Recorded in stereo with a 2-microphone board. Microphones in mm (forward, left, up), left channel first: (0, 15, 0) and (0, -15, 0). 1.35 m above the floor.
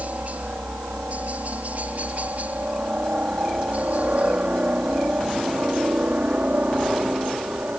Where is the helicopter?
55° right (ahead or behind).